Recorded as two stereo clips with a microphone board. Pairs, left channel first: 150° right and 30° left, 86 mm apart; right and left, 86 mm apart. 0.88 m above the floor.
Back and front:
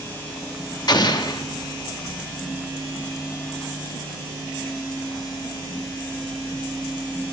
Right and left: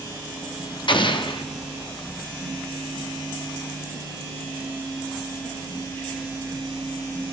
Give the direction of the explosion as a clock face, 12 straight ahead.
4 o'clock.